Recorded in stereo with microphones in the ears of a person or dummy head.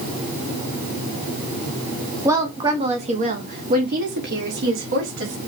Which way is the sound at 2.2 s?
15° right (ahead or behind).